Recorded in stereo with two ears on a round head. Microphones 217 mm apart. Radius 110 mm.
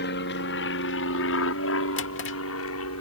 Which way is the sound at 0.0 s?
45° left (ahead or behind).